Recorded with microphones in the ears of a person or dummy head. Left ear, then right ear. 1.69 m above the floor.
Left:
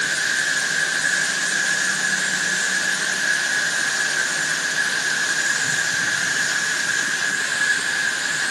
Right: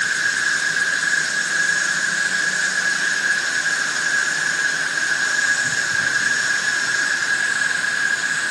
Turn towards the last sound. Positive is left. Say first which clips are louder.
# right 1 dB
turn(degrees=-35)  # may be behind; listen again after turning